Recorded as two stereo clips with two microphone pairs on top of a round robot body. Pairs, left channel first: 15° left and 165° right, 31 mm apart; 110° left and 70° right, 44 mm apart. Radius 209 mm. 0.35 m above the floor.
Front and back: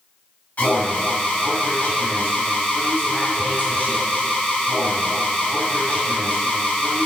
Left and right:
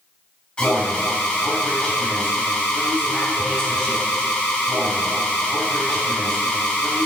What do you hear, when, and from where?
0.6 s an alarm: 50° left, 3 m